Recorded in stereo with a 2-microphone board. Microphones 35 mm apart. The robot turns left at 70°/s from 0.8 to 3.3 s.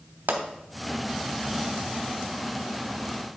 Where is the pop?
70° right (ahead or behind), 0.9 m.